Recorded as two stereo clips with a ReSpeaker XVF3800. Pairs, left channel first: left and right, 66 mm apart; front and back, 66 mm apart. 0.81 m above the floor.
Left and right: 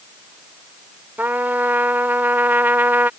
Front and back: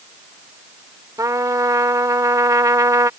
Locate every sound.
1.2 s a trumpet: 150° right